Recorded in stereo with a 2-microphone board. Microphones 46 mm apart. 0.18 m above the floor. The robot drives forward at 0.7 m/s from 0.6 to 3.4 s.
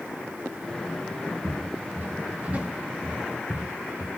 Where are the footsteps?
50° right (ahead or behind), 3 m; by 4.1 s 5° left (ahead or behind), 1.8 m.